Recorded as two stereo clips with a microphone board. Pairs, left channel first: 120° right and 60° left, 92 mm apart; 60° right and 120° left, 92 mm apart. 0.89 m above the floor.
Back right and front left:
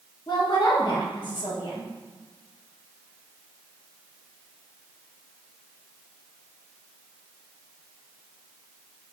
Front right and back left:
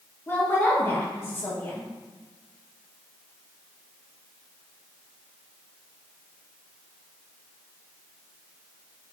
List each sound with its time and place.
0.3 s a woman speaking: 120° right, 0.8 m